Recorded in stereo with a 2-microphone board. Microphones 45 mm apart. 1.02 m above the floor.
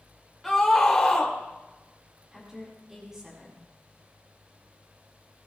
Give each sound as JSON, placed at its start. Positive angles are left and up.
{"t": 0.4, "sound": "a scream", "side_deg": 5, "distance_m": 3.0}
{"t": 2.3, "sound": "a woman speaking", "side_deg": -10, "distance_m": 8.0}